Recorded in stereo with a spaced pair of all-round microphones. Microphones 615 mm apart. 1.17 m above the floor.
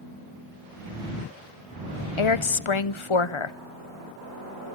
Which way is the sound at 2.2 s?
50° left (ahead or behind).